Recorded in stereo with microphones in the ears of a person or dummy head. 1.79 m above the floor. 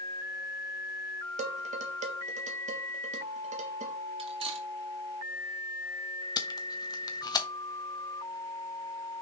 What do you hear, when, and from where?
1.4 s dishes clattering: 40° right (ahead or behind), 1.5 m
4.2 s cutlery clinking: 25° right (ahead or behind), 1.8 m
6.4 s tape being pulled: 20° left (ahead or behind), 0.9 m